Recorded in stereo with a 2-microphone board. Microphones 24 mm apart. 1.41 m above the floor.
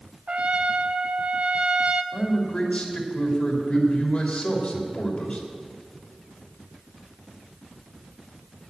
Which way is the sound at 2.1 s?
60° left (ahead or behind).